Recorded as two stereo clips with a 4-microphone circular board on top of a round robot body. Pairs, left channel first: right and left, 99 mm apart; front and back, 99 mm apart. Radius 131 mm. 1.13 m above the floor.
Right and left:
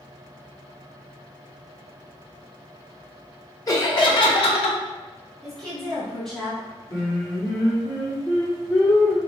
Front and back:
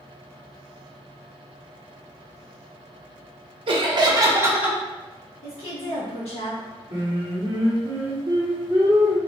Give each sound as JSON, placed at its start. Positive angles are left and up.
{"t": 3.7, "sound": "laughter", "azimuth_deg": -145, "distance_m": 0.9}
{"t": 5.4, "sound": "a woman speaking", "azimuth_deg": -5, "distance_m": 1.5}
{"t": 6.9, "sound": "singing", "azimuth_deg": -145, "distance_m": 0.9}